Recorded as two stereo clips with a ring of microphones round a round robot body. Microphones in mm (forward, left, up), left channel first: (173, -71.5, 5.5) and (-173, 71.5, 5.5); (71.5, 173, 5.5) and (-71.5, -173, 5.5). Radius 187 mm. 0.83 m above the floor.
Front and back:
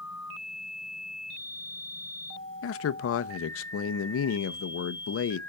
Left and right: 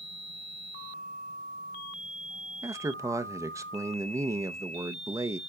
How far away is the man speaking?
About 0.6 m.